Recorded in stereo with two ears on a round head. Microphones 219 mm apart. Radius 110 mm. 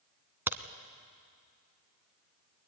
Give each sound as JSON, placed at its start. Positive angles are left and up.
{"t": 0.5, "sound": "a crack", "side_deg": -10, "distance_m": 1.1}